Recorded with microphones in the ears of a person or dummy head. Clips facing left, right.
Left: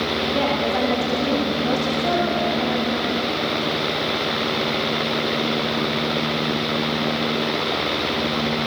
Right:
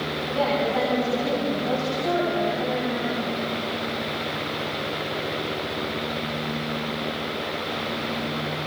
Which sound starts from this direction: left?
A woman speaking, at 0.3 s.